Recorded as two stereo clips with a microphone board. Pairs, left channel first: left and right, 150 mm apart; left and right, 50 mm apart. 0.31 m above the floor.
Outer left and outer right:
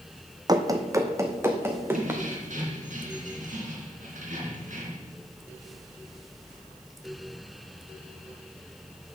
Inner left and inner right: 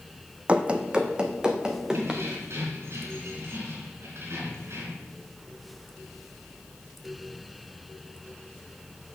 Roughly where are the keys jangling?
Right.